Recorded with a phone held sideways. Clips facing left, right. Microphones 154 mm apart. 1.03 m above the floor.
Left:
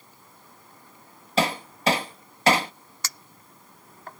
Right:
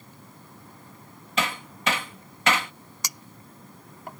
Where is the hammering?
35° left (ahead or behind).